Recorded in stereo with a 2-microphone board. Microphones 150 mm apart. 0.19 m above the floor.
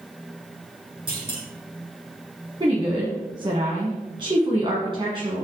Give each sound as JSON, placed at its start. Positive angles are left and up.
{"t": 1.1, "sound": "a clunk", "side_deg": -35, "distance_m": 2.5}
{"t": 2.6, "sound": "a woman speaking", "side_deg": -35, "distance_m": 1.5}